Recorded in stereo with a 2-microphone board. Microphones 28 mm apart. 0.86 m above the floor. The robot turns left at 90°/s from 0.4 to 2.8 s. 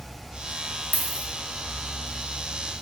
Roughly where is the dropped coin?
Right.